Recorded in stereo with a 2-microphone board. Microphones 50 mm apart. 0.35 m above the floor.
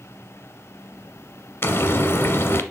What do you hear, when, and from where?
1.6 s frying: 60° left (ahead or behind), 1.1 m